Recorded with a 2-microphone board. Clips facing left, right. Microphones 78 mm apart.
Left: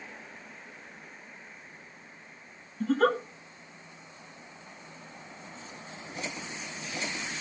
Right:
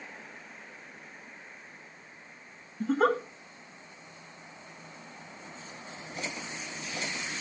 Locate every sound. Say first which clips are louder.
2.8 s a giggle: left 1 dB; 20° right (ahead or behind), 1.5 m